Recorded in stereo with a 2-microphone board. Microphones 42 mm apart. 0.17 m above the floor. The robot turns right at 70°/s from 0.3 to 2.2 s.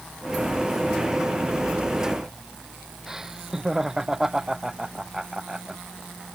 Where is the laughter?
15° right (ahead or behind).